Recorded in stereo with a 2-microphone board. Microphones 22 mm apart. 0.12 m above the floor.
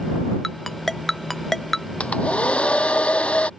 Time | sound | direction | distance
0.4 | a ringtone | 15° left (ahead or behind) | ?
2.0 | a hair dryer | 75° left (ahead or behind) | ?